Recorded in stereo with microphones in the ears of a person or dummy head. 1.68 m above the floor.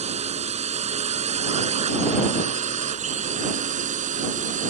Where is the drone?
25° right (ahead or behind); by 4.7 s 30° right (ahead or behind).